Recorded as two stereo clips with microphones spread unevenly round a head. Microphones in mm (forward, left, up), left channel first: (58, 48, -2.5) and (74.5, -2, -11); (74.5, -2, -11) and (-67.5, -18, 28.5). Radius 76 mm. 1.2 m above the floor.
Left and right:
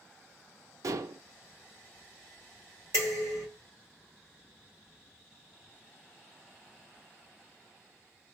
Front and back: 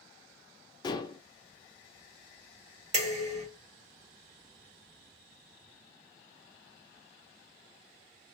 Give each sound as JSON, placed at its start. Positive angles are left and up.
{"t": 0.8, "sound": "dishes clattering", "azimuth_deg": -60, "distance_m": 0.5}
{"t": 2.9, "sound": "dishes clattering", "azimuth_deg": -135, "distance_m": 1.2}